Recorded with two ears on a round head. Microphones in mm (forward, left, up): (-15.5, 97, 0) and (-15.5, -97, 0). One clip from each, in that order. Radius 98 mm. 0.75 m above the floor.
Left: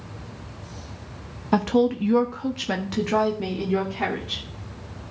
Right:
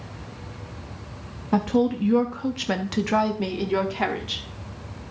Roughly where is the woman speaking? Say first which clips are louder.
Left 2 dB; left.